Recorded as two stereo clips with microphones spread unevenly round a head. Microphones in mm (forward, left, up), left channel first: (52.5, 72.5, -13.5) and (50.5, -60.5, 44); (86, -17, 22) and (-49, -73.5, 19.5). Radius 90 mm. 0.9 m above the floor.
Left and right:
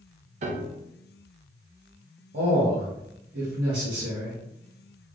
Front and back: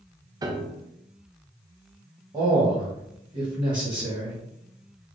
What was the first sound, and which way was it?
A piano, 125° right.